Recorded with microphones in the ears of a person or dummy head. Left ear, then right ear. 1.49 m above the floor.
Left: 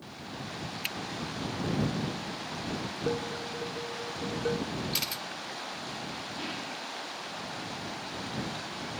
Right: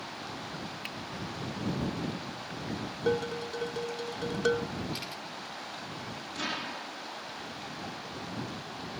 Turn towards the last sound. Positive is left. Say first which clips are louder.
# right 6 dB
turn(degrees=-55)  # may be behind; listen again after turning